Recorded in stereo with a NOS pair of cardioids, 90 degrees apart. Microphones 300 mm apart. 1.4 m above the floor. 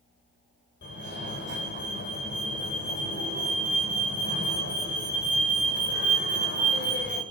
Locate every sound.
0.8 s a fire alarm: 40° left, 9 m